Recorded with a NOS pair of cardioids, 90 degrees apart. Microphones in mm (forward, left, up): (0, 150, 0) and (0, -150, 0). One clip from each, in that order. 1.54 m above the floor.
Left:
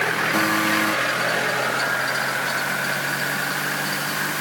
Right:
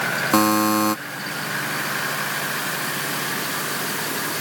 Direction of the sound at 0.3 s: 50° right.